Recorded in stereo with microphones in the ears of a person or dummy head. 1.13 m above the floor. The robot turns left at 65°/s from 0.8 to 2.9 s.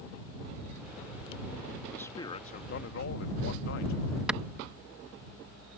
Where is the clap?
Centre (ahead or behind).